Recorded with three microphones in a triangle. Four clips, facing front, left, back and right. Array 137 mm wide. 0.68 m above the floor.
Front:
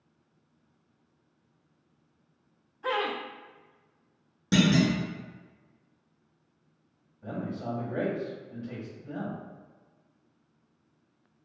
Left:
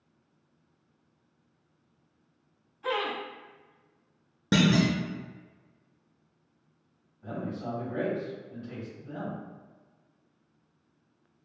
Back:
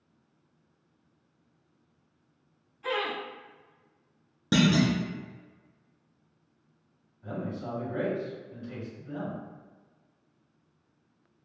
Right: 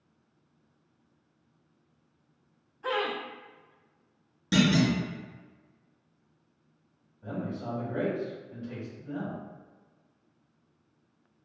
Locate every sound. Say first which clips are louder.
2.8 s laughter: even, front 2 dB; 25° right, 0.7 m
4.5 s a clunk: even, even; 115° left, 0.6 m
7.2 s a man speaking: even, front 1 dB; 35° right, 1.9 m